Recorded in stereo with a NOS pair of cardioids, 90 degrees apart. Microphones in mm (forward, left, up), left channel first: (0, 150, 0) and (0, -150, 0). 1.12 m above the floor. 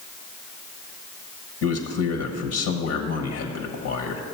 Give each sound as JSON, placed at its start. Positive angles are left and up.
{"t": 1.6, "sound": "a man speaking", "azimuth_deg": 65, "distance_m": 1.3}